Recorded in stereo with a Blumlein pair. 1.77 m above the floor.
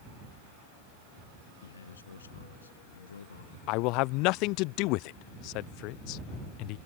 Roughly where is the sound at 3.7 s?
Ahead left.